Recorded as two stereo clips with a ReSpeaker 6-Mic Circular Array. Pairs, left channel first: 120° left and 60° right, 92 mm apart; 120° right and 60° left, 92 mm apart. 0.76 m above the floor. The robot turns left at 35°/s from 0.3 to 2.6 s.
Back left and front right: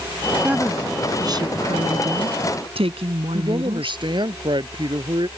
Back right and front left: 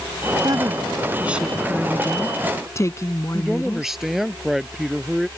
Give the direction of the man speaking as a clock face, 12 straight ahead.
1 o'clock.